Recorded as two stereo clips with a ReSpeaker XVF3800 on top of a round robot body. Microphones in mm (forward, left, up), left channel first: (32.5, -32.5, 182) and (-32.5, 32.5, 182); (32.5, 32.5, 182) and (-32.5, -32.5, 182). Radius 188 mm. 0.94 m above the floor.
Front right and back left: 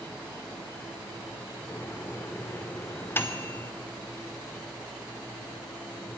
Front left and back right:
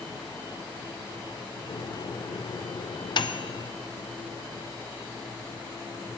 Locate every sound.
1.7 s a microwave: 20° left, 0.6 m